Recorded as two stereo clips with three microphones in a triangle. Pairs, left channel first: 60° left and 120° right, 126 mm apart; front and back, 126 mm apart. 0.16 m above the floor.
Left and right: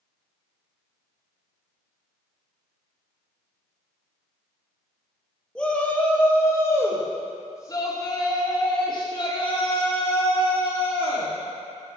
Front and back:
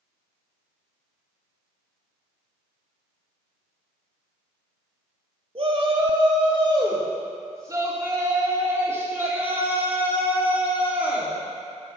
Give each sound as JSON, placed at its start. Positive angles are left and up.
{"t": 5.5, "sound": "a shout", "azimuth_deg": 145, "distance_m": 3.5}